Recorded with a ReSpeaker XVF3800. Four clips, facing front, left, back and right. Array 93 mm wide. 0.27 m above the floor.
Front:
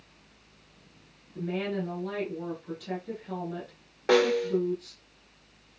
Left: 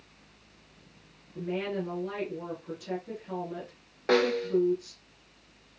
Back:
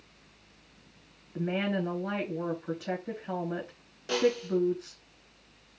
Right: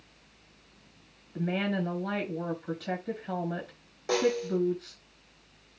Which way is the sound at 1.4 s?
145° right.